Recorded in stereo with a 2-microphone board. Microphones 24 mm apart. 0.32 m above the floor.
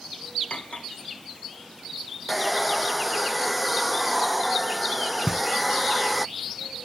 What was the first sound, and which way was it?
Cutlery clinking, 70° left (ahead or behind).